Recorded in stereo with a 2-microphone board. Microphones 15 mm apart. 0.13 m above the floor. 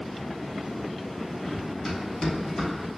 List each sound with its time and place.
1.5 s running footsteps: 10° left (ahead or behind), 2.5 m; by 2.7 s 20° left (ahead or behind), 3 m